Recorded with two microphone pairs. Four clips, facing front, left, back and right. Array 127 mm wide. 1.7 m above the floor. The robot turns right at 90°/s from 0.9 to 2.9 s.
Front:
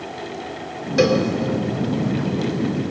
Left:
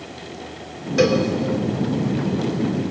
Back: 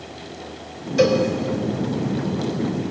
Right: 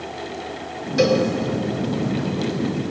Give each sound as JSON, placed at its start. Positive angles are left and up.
{"t": 1.0, "sound": "a cowbell", "azimuth_deg": 30, "distance_m": 3.0}